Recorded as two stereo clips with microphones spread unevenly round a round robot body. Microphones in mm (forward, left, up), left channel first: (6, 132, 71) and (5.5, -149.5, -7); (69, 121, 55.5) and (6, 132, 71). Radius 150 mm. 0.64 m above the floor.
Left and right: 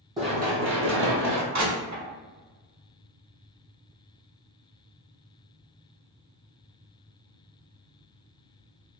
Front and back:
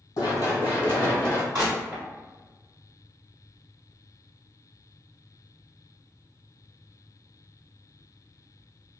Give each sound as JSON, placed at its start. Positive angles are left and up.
{"t": 0.2, "sound": "running footsteps", "azimuth_deg": -5, "distance_m": 1.0}
{"t": 1.5, "sound": "crushing", "azimuth_deg": -130, "distance_m": 1.6}